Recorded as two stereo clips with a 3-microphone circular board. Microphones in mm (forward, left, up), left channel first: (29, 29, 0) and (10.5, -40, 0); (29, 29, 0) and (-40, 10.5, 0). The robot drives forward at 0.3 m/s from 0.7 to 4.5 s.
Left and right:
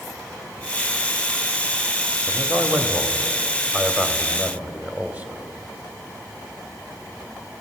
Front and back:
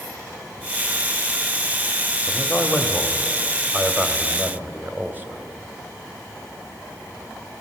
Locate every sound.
2.3 s a man speaking: 55° right, 1.1 m; by 5.4 s 140° right, 1.1 m